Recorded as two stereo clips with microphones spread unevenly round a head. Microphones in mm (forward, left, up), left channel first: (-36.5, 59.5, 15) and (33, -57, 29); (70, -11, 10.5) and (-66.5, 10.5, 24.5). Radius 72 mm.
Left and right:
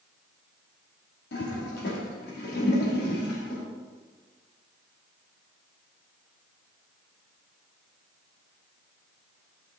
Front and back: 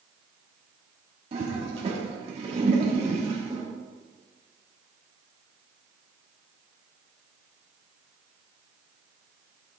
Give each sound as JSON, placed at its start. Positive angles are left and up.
{"t": 1.3, "sound": "a toilet flushing", "azimuth_deg": 120, "distance_m": 2.0}